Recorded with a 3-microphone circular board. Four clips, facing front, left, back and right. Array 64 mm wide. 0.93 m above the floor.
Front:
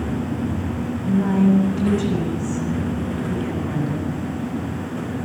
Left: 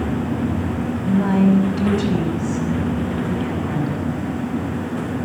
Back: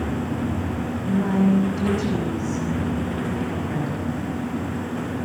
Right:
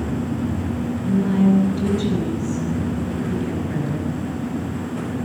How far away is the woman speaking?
About 5.5 m.